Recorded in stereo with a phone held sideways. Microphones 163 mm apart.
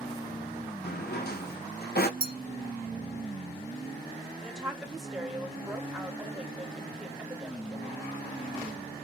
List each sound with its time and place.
0.8 s a drawer: 70° left (ahead or behind), 0.5 m
2.2 s a clink: 60° right (ahead or behind), 0.6 m
4.4 s a woman speaking: centre (ahead or behind), 1.0 m